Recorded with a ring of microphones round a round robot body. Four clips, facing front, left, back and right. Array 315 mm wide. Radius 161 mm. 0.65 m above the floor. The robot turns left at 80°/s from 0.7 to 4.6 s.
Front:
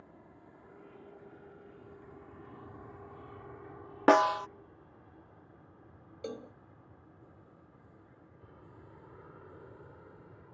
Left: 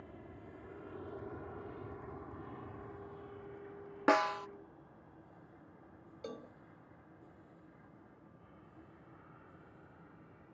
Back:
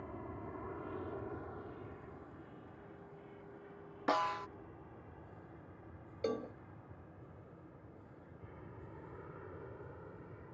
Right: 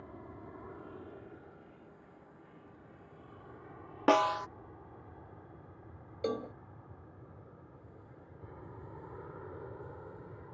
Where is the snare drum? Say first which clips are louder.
Right 3 dB, front 11 dB; 10° right; by 4.5 s 45° right.